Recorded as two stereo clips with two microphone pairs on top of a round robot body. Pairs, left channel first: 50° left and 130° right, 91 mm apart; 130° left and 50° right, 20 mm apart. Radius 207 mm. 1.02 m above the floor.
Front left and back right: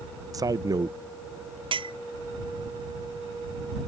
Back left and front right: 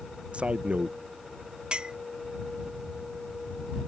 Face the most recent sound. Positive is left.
turn(degrees=-105)